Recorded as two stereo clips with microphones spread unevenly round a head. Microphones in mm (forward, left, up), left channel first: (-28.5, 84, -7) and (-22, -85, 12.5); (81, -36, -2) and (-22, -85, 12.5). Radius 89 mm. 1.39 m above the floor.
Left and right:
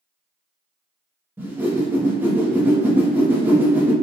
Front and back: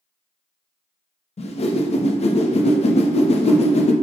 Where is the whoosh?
10° right, 0.6 m.